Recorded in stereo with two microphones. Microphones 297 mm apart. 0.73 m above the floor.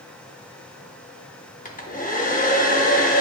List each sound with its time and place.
1.6 s a hair dryer: 30° left (ahead or behind), 0.6 m